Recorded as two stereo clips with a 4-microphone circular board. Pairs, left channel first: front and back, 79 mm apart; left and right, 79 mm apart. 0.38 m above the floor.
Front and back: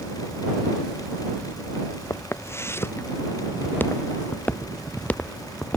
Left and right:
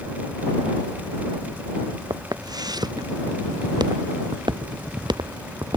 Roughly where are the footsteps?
Ahead right.